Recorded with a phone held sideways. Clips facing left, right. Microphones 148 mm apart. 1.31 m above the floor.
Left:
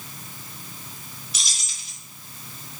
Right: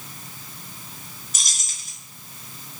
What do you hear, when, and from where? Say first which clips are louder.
1.3 s keys jangling: even; 45° right (ahead or behind), 0.7 m